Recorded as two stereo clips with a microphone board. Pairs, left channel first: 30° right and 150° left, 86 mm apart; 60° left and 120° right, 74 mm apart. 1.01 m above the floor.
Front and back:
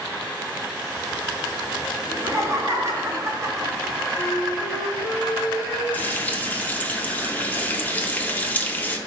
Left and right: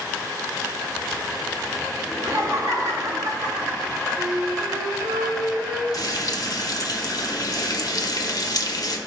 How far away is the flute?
About 3 m.